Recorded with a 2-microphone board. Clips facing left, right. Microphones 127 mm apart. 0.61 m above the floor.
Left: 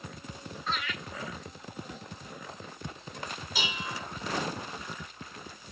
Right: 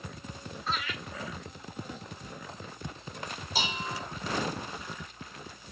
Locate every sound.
0.7 s laughter: centre (ahead or behind), 3 m
3.5 s dishes clattering: 30° right (ahead or behind), 2.5 m